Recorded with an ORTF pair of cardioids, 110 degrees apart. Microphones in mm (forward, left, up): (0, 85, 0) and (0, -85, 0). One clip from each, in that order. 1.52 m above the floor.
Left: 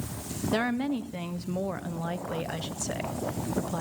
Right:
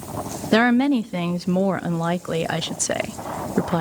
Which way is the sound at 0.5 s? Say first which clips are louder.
Right 11 dB; 45° right.